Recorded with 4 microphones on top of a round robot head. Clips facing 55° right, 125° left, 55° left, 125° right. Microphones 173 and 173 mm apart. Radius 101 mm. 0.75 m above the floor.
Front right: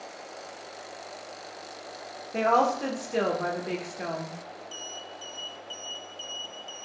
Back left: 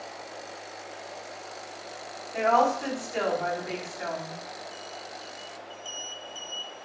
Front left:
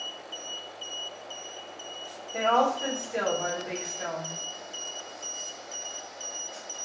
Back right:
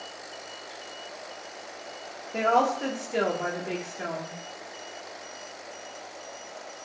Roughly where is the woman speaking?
Right.